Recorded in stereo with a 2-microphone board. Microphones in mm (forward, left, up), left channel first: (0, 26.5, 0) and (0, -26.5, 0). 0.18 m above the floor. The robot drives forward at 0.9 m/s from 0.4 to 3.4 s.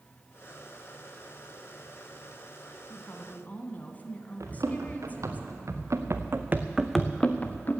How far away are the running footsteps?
About 3.5 m.